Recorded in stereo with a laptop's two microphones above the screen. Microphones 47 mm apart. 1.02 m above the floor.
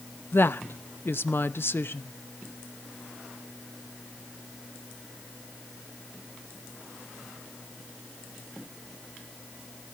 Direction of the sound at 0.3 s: 55° left (ahead or behind).